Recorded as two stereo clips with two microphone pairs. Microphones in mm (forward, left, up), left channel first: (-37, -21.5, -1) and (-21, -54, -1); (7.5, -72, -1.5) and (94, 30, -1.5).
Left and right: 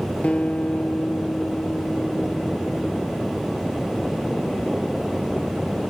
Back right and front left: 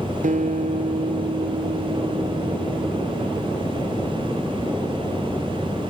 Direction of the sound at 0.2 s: 60° left.